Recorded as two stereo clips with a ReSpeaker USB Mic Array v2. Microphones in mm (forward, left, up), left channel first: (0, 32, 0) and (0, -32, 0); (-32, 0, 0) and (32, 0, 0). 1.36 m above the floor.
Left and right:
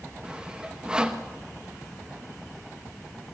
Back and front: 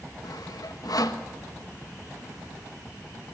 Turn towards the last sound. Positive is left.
turn(degrees=-165)